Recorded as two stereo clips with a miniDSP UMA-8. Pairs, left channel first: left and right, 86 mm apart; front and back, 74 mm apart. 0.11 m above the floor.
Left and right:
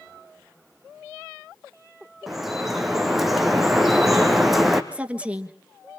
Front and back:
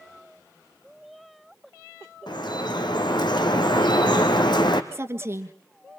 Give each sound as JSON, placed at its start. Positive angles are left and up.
{"t": 2.3, "sound": "dripping", "azimuth_deg": 0, "distance_m": 2.0}
{"t": 4.9, "sound": "a woman speaking", "azimuth_deg": -155, "distance_m": 1.6}